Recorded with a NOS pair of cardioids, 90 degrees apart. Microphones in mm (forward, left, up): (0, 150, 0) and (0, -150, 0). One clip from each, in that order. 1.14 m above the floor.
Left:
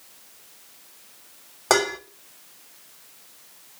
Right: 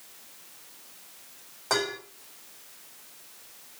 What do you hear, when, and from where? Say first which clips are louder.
1.7 s dishes clattering: left 7 dB; 70° left, 2.5 m